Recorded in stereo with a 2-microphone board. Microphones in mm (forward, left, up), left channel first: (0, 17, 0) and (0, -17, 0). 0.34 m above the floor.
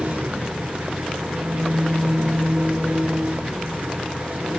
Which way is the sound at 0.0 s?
55° right (ahead or behind).